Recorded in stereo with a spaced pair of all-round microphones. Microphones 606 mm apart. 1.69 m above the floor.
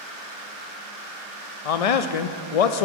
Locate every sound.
1.6 s a man speaking: 70° left (ahead or behind), 0.6 m